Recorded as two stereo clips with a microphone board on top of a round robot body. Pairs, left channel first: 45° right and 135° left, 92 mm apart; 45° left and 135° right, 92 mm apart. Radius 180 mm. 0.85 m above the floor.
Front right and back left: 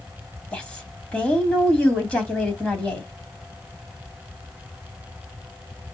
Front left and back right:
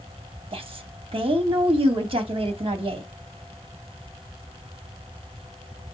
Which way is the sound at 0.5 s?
120° right.